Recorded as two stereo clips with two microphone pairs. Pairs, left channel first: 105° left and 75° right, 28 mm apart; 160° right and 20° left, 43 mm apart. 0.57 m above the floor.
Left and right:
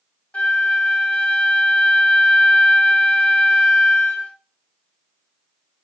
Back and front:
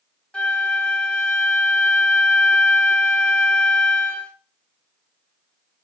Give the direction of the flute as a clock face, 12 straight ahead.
7 o'clock.